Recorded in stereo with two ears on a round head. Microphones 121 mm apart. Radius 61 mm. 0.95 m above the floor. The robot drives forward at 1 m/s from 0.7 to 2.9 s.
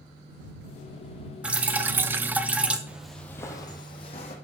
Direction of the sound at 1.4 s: 10° right (ahead or behind).